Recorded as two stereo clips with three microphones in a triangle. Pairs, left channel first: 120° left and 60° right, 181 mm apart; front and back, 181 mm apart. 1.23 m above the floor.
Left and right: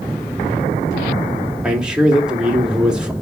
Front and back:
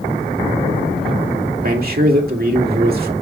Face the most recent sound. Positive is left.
turn(degrees=-145)